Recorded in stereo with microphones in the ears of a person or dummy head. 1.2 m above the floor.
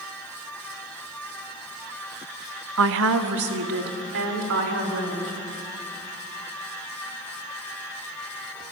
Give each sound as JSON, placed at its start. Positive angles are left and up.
{"t": 2.8, "sound": "a woman speaking", "side_deg": -80, "distance_m": 1.0}